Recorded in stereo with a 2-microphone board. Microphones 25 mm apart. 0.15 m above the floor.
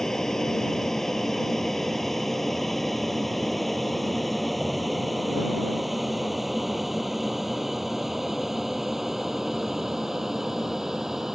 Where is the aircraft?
20° left (ahead or behind); by 11.3 s 10° right (ahead or behind).